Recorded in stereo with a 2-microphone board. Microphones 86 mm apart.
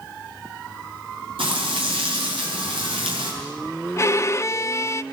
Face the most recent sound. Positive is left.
turn(degrees=35)  # may be behind; listen again after turning